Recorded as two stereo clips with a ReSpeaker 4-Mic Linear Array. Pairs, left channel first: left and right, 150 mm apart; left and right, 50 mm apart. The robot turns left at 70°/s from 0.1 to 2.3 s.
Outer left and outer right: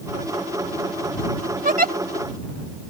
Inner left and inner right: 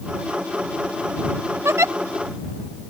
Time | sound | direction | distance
1.6 | a giggle | 60° right (ahead or behind) | ?